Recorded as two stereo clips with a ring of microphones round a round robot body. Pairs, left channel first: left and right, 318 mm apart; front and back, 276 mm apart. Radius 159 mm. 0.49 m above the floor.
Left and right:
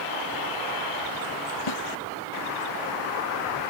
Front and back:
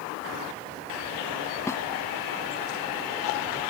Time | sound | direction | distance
1.7 | a snare drum | 80° left | ?